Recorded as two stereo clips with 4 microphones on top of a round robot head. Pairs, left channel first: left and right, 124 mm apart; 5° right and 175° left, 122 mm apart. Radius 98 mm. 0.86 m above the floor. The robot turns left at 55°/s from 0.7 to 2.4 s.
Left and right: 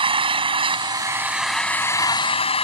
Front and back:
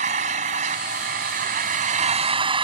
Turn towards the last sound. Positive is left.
turn(degrees=130)